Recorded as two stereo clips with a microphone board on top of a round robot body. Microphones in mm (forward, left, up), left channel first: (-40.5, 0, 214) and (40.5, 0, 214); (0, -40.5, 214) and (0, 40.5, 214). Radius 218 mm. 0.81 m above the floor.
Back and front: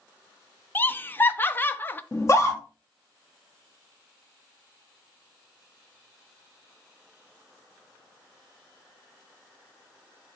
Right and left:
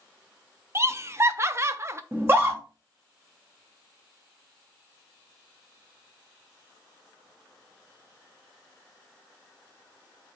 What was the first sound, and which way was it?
Laughter, 125° left.